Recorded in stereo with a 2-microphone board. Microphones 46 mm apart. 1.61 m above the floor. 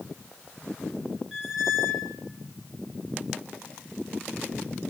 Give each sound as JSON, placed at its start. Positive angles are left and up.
{"t": 1.3, "sound": "a squeak", "side_deg": -10, "distance_m": 3.5}